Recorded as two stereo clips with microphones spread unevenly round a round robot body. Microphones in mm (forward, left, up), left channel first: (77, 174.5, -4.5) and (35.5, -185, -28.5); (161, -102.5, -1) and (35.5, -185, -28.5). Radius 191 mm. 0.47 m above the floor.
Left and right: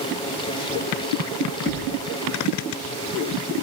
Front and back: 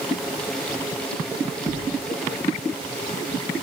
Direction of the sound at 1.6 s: 160° right.